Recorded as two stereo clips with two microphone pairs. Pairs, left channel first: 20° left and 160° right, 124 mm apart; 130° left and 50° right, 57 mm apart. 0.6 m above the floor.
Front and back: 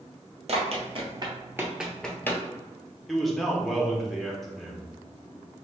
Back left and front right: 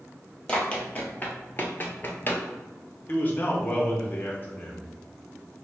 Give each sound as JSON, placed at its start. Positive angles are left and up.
{"t": 0.5, "sound": "running footsteps", "azimuth_deg": -165, "distance_m": 1.0}
{"t": 3.1, "sound": "a man speaking", "azimuth_deg": 105, "distance_m": 0.6}